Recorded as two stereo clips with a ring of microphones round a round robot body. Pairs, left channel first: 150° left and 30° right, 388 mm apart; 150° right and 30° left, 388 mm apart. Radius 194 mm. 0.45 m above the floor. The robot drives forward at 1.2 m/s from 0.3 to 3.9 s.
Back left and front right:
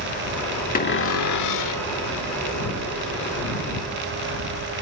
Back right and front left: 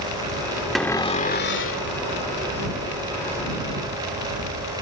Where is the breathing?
I don't hear breathing.